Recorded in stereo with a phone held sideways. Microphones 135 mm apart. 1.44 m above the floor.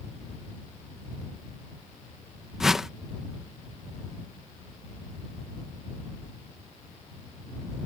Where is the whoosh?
5° right (ahead or behind).